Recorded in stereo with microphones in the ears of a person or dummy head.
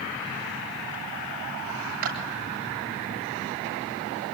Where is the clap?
50° right (ahead or behind), 8.5 m.